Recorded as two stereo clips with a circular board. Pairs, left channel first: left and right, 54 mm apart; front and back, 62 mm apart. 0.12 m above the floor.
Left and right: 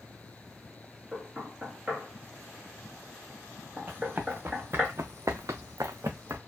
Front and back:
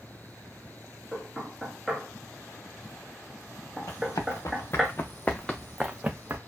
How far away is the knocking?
About 1.4 m.